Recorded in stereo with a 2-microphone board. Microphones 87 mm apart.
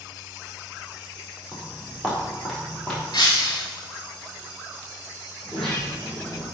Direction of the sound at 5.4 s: 5° left (ahead or behind).